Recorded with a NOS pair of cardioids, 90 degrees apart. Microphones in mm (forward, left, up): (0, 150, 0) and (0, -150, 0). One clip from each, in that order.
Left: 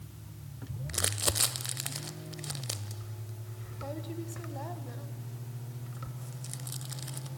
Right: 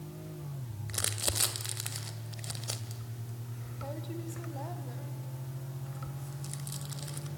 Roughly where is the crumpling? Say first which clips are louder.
Left 2 dB; ahead.